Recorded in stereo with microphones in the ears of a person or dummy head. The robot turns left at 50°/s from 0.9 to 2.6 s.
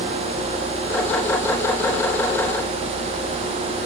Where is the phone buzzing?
I don't hear a phone buzzing.